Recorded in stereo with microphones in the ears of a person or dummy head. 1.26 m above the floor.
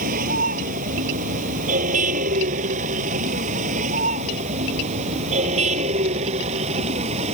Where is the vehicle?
50° right (ahead or behind); by 7.3 s 40° right (ahead or behind).